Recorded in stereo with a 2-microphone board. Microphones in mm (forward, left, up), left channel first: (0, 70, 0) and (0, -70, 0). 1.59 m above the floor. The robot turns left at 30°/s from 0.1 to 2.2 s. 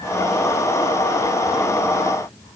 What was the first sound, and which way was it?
Only background noise.